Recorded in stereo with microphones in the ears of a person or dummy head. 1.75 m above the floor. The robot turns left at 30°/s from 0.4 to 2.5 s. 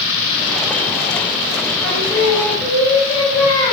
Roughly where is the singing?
Centre.